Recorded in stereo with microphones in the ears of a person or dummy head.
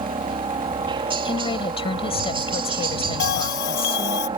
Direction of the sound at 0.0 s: 25° right (ahead or behind).